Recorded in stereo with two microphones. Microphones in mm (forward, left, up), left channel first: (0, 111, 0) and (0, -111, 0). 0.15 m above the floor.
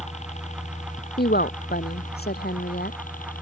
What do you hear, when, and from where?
0.0 s a helicopter: 35° left (ahead or behind); by 3.4 s 40° left (ahead or behind)
1.2 s a woman speaking: 50° left (ahead or behind)